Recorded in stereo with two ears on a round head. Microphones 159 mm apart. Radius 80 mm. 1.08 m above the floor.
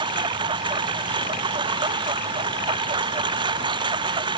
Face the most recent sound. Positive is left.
turn(degrees=-25)  # may be behind; listen again after turning